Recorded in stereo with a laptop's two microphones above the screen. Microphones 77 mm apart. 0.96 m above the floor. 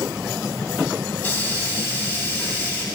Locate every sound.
1.2 s a hiss: 25° left (ahead or behind), 2.5 m